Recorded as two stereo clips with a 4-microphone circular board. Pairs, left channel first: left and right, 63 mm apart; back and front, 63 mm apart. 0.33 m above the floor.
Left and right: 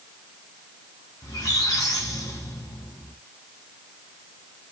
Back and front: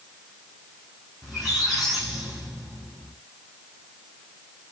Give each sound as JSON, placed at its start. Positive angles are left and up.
{"t": 1.2, "sound": "a squeak", "azimuth_deg": 85, "distance_m": 5.0}